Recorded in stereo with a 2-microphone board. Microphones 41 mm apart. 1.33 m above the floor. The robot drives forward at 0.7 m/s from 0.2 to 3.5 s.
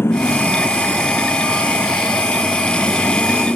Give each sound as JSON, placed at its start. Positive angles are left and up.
{"t": 0.0, "sound": "a motorcycle", "side_deg": 85}